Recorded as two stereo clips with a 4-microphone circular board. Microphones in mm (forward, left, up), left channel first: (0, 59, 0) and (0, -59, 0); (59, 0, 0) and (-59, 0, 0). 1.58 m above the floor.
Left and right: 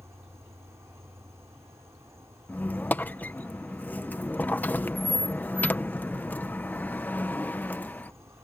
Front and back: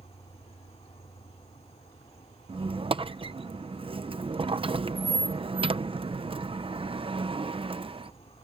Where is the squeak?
160° left.